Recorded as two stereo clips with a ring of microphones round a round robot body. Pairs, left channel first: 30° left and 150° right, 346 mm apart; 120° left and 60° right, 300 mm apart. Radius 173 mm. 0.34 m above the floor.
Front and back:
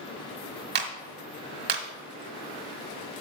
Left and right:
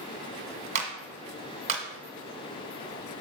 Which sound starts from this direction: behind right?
A clap, at 0.8 s.